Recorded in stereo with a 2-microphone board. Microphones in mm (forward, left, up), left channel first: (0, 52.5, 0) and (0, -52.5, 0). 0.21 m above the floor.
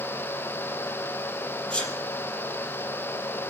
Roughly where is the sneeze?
Centre.